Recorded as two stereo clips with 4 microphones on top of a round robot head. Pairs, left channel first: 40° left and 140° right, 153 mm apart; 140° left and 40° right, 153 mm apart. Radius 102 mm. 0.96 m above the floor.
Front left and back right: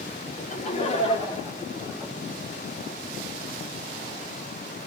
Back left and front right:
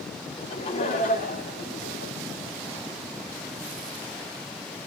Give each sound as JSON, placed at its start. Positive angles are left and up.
{"t": 0.4, "sound": "laughter", "azimuth_deg": 75, "distance_m": 3.0}